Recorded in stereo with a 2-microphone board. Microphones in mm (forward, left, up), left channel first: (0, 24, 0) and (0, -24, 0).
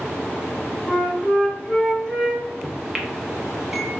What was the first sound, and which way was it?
A flute, 20° left (ahead or behind).